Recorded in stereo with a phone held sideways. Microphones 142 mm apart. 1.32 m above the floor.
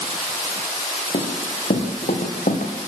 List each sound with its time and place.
1.1 s running footsteps: 70° left (ahead or behind), 4 m; by 2.7 s 65° left (ahead or behind), 3.5 m